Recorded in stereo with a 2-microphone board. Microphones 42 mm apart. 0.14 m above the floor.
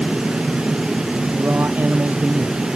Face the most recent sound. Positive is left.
turn(degrees=-55)  # may be behind; listen again after turning